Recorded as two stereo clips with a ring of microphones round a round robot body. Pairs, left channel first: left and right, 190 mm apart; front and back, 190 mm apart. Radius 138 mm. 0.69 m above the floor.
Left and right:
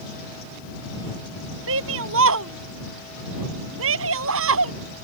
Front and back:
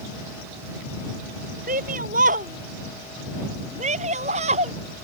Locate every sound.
1.7 s a shout: 120° right; by 4.7 s 110° right